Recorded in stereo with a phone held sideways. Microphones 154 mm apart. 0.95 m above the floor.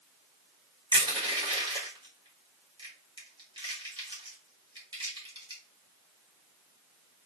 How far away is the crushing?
About 1.2 m.